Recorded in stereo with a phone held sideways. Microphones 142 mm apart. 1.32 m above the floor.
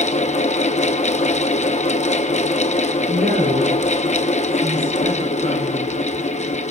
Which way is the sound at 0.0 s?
55° left (ahead or behind).